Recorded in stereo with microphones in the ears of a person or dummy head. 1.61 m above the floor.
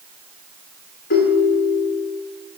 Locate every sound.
1.1 s a ringtone: 55° left (ahead or behind), 2 m